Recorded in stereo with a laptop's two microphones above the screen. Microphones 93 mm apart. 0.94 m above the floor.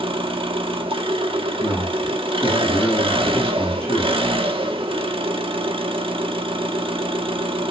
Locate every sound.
0.0 s an engine running: 75° right (ahead or behind), 1.4 m
1.6 s a man speaking: 10° left (ahead or behind), 7 m